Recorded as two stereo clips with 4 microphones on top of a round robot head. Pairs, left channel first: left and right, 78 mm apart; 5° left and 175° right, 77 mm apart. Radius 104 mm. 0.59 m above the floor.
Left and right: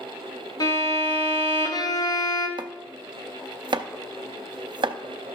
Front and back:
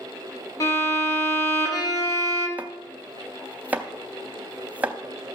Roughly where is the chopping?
Right.